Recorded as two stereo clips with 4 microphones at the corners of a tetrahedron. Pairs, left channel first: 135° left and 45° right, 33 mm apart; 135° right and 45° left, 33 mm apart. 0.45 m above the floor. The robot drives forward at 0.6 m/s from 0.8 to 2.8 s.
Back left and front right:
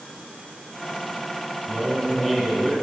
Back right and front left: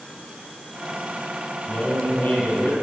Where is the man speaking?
130° right, 2.5 m; by 2.8 s 140° right, 3 m.